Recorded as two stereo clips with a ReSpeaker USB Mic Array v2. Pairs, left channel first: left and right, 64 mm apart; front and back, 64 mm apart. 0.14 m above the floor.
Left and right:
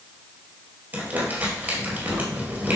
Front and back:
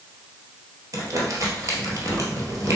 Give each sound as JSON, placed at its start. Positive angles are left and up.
{"t": 0.9, "sound": "crumpling", "azimuth_deg": -150, "distance_m": 1.6}